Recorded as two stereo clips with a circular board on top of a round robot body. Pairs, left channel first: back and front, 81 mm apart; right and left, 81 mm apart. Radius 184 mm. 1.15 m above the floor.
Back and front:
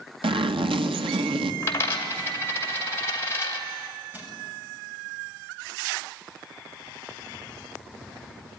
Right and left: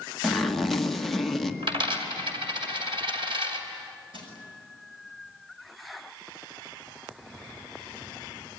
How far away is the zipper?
About 1.4 m.